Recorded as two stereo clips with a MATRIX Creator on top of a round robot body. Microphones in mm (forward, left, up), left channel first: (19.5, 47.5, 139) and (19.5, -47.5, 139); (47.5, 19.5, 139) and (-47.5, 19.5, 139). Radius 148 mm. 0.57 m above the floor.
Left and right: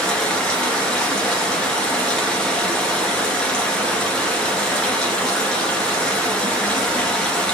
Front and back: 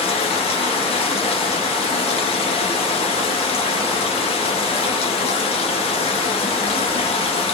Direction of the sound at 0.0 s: 10° left.